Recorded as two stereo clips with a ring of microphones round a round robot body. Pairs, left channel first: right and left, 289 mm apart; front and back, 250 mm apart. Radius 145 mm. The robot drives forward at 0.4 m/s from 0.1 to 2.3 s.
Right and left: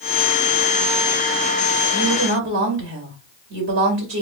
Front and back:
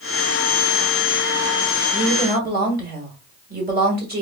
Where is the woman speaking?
130° left, 1.7 m; by 4.2 s 135° left, 1.7 m.